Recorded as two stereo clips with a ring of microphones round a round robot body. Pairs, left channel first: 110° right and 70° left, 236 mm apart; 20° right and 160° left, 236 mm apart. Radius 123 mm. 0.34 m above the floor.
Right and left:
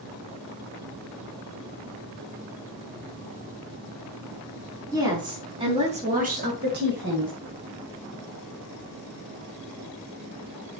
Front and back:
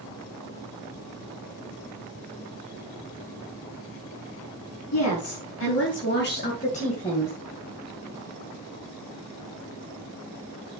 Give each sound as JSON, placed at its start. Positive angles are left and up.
{"t": 4.9, "sound": "a woman speaking", "azimuth_deg": -5, "distance_m": 4.0}